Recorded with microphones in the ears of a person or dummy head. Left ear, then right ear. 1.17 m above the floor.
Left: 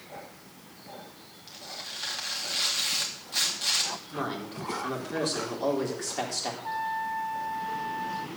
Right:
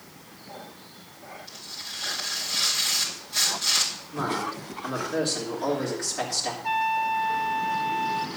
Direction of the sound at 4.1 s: 35° left (ahead or behind).